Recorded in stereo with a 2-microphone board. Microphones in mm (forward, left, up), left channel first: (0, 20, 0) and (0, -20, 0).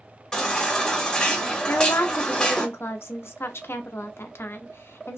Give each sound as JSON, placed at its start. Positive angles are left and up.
{"t": 0.3, "sound": "a baby crying", "side_deg": 20, "distance_m": 1.1}
{"t": 1.7, "sound": "a woman speaking", "side_deg": 85, "distance_m": 0.5}